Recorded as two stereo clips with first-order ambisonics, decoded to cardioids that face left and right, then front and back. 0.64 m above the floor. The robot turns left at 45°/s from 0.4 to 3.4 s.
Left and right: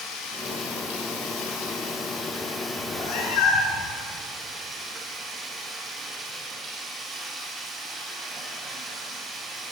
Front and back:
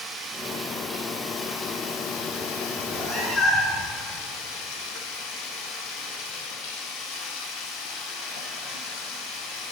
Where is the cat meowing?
90° left, 4 m; by 3.9 s 65° left, 4 m.